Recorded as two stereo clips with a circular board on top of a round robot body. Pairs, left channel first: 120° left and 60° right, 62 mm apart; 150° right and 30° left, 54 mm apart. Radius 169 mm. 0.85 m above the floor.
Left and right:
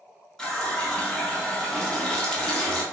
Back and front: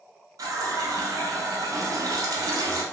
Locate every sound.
0.4 s a running tap: 40° left, 0.5 m